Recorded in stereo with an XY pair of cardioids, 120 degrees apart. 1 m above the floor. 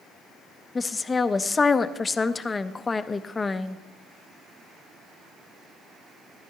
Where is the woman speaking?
20° left, 0.5 m.